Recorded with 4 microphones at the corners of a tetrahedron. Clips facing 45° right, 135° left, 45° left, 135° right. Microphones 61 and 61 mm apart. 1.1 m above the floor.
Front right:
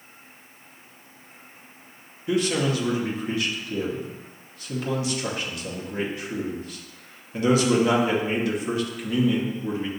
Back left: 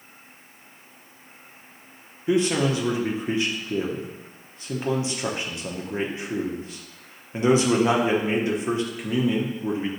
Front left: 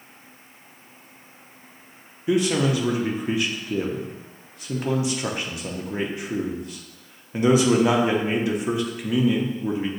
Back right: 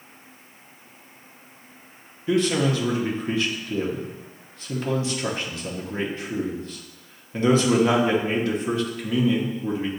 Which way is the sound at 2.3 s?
110° left.